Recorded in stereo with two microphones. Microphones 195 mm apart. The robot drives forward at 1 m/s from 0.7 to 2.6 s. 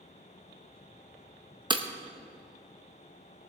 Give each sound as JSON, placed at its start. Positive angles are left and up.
{"t": 1.7, "sound": "breaking glass", "side_deg": -25, "distance_m": 0.7}